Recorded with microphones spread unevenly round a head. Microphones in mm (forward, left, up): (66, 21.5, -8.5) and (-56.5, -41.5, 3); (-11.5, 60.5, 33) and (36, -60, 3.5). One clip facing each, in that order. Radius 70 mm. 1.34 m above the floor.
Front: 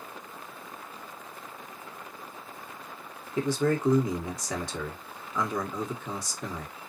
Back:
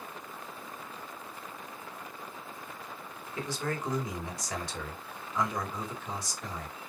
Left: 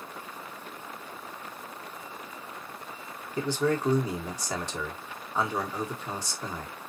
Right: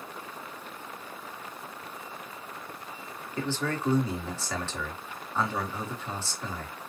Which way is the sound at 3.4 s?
35° left.